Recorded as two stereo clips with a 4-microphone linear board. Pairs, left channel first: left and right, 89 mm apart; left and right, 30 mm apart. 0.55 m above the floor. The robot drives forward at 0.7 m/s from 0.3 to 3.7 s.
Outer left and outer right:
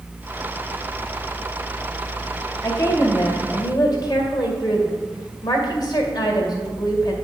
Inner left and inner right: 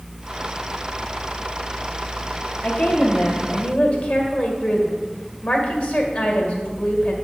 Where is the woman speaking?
40° left (ahead or behind), 2.5 m; by 7.1 s 50° left (ahead or behind), 1.8 m.